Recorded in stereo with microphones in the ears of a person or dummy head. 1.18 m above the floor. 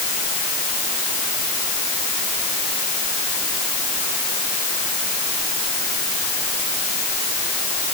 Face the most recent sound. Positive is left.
No sound to turn to.